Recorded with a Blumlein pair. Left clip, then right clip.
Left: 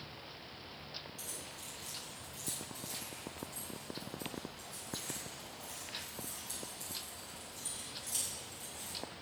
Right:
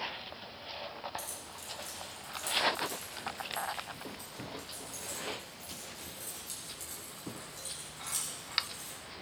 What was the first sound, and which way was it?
Keys jangling, 15° right.